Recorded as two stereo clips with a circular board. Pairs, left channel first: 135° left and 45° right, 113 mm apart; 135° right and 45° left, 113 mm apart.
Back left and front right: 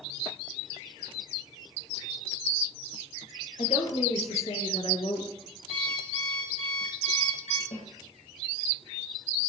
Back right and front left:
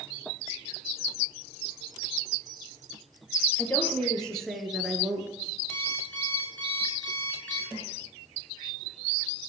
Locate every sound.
3.6 s a woman speaking: 155° left, 4 m; by 5.3 s 115° left, 2.5 m
5.7 s an alarm clock: 145° left, 8 m
7.7 s a snare drum: 135° left, 5.5 m